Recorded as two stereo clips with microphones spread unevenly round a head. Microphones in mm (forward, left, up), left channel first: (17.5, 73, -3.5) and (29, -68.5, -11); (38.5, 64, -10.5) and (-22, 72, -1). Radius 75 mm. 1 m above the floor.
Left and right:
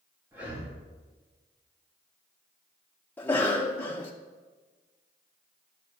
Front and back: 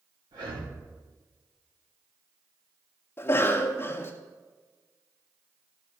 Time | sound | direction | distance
0.3 | breathing | 160° right | 2 m
3.2 | a cough | 20° left | 0.6 m